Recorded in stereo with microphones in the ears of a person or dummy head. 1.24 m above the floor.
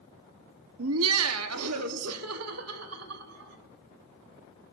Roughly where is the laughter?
Right.